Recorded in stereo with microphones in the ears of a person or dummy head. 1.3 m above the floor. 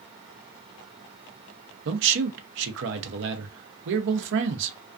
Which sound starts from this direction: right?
A man speaking, at 1.9 s.